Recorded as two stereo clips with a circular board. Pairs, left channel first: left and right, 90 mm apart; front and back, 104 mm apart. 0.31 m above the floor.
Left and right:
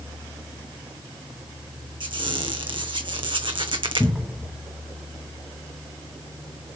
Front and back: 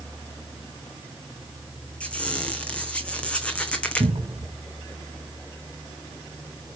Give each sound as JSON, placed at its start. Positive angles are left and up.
{"t": 2.0, "sound": "a squeak", "azimuth_deg": -80, "distance_m": 0.8}
{"t": 4.0, "sound": "a cupboard door", "azimuth_deg": 180, "distance_m": 0.7}